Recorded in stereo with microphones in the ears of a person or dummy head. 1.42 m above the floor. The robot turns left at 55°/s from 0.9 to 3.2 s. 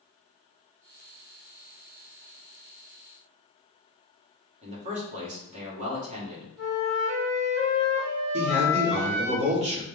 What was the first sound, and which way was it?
A man speaking, 35° right (ahead or behind).